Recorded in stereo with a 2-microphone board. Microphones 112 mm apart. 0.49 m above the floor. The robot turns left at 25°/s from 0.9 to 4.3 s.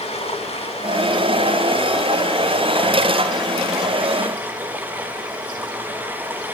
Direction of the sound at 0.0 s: 70° left.